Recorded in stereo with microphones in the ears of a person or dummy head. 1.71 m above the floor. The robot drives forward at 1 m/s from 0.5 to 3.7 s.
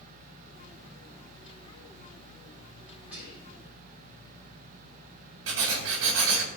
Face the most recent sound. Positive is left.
turn(degrees=-65)  # may be behind; listen again after turning